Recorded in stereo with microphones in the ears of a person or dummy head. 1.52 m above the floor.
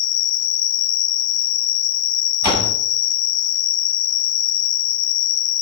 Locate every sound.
0.0 s an insect: 85° left, 1.3 m
2.4 s a door slam: 20° right (ahead or behind), 6 m